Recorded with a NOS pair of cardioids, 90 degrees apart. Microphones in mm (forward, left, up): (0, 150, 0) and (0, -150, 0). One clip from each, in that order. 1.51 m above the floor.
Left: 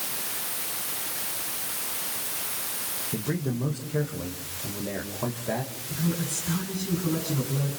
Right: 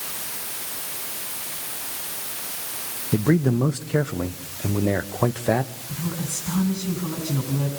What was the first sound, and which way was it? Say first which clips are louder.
A man speaking: right 12 dB; 60° right.